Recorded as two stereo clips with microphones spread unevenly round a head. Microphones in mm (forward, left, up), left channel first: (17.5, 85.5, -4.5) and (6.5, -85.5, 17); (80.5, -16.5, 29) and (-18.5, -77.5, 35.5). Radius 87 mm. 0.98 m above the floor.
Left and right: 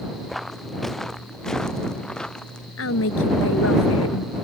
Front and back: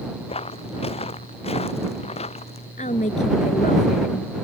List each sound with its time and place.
0.3 s footsteps: 5° right; by 2.7 s straight ahead
2.8 s a woman speaking: 80° left